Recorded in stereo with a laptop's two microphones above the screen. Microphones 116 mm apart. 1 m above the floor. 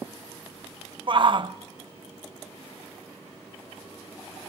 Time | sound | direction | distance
1.1 | a shout | 45° right (ahead or behind) | 0.6 m